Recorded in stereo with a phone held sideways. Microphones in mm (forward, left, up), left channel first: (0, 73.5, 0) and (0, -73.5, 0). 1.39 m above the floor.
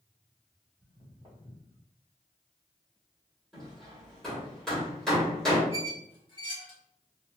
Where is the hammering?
5° left (ahead or behind), 1.2 m.